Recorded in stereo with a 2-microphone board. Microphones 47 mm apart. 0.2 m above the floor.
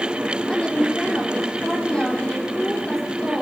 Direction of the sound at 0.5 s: 25° left (ahead or behind).